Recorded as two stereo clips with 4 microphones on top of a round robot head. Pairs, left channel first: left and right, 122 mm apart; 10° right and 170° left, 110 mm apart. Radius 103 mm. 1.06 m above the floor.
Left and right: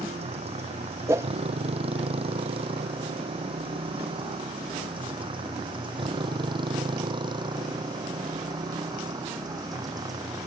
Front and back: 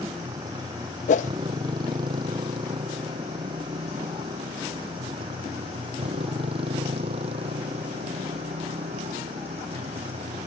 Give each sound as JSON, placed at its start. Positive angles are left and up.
{"t": 0.0, "sound": "a motorcycle", "azimuth_deg": -125}
{"t": 1.1, "sound": "a whoosh", "azimuth_deg": -15}